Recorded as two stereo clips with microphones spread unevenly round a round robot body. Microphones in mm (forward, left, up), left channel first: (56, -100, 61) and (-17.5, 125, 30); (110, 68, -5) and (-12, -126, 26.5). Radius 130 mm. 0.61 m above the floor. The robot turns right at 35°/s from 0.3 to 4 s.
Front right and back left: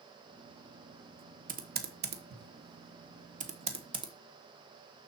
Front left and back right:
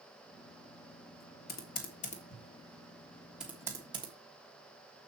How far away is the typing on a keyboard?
About 1.4 m.